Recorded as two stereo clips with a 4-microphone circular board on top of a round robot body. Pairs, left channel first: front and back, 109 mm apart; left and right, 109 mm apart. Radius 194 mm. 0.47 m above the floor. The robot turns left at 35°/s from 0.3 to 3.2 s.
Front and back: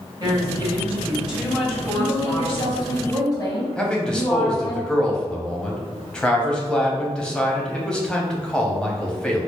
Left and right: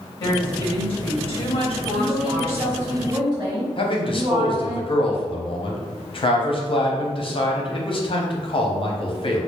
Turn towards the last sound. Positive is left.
turn(degrees=80)